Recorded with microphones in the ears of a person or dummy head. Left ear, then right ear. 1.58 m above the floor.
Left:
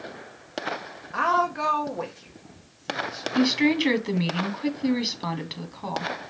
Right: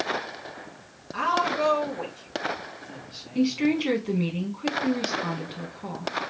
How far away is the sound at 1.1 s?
About 1.0 m.